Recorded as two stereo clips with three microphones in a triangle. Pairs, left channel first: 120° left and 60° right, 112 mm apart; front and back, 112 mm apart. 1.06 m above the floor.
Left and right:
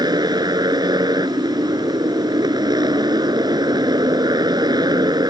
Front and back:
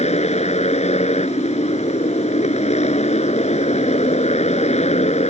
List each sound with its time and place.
0.0 s a motorcycle: 10° right